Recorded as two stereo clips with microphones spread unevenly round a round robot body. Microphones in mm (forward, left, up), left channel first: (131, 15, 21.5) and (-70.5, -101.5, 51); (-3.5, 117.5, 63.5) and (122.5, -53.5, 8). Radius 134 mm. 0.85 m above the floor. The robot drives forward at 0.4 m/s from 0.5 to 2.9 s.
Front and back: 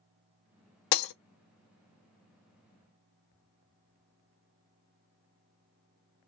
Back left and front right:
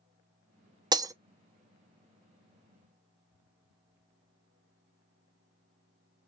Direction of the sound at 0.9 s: 20° left.